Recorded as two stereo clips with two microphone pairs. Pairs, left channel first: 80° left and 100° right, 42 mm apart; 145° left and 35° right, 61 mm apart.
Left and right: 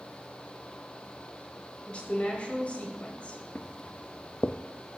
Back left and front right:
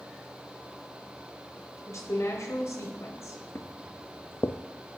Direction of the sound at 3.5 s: 115° left.